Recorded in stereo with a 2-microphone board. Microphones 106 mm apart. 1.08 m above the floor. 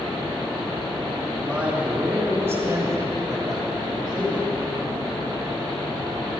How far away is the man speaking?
About 3.5 m.